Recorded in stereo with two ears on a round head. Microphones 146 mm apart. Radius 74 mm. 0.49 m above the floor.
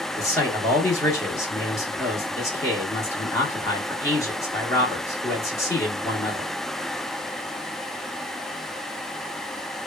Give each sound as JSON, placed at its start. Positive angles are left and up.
{"t": 0.2, "sound": "a man speaking", "side_deg": 20, "distance_m": 0.8}